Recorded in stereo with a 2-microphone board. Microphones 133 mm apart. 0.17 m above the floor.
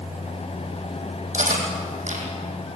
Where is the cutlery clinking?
70° right (ahead or behind), 4.5 m.